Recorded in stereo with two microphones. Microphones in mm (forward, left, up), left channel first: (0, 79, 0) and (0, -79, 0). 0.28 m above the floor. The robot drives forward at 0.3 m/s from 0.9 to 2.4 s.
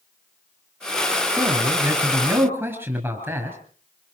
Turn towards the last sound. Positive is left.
turn(degrees=-10)  # may be behind; listen again after turning